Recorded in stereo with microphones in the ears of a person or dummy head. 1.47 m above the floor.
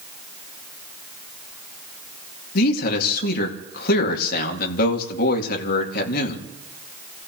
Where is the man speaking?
60° left (ahead or behind), 2.5 m.